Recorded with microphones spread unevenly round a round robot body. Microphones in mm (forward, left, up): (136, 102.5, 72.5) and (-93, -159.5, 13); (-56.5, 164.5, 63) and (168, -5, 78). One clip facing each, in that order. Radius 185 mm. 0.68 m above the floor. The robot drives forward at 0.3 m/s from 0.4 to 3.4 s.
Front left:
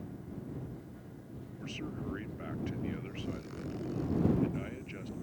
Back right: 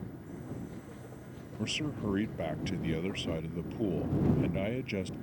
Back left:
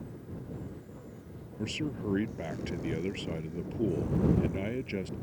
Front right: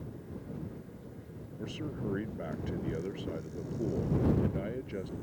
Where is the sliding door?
No sliding door in this recording.